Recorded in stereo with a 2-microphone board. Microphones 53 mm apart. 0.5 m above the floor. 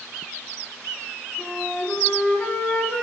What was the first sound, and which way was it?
A flute, 25° left (ahead or behind).